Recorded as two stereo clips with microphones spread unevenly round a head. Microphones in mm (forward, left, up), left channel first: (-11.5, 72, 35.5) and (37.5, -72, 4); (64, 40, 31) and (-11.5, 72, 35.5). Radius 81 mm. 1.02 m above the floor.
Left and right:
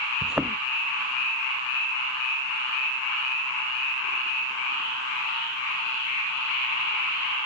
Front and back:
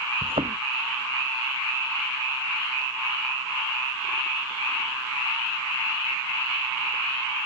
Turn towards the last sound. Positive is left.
turn(degrees=-155)